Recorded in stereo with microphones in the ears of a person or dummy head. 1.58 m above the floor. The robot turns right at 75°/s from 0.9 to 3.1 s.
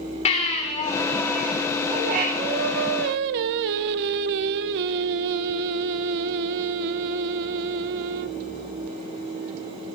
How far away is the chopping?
No chopping in this recording.